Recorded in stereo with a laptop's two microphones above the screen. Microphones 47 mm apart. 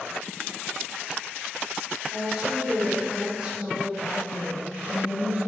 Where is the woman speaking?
15° right (ahead or behind), 4 m; by 5.4 s 60° right (ahead or behind), 4.5 m.